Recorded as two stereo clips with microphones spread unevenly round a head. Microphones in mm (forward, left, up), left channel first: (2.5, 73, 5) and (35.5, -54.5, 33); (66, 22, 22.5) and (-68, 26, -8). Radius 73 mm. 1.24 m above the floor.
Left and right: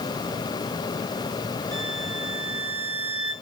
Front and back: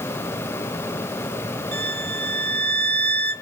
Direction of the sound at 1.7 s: 170° right.